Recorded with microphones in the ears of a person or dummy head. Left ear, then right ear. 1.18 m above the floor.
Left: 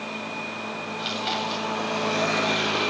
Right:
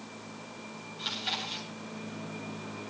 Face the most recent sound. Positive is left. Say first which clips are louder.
# left 5 dB
turn(degrees=10)  # may be behind; listen again after turning